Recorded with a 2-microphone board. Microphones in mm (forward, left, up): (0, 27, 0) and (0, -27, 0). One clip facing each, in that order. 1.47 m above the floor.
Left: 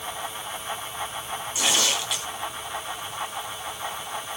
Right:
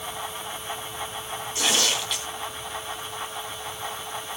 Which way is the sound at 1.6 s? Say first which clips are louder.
Even; 5° left (ahead or behind).